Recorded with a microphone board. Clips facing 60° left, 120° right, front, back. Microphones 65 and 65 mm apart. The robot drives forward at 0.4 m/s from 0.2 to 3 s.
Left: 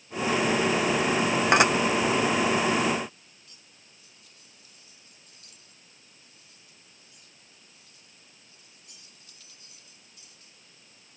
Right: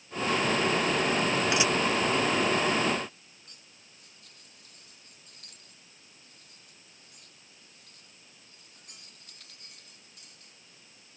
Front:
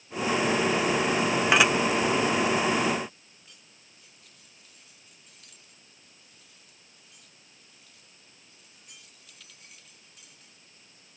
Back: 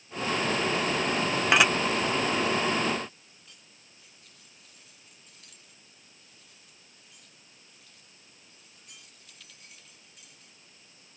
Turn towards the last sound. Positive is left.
turn(degrees=-90)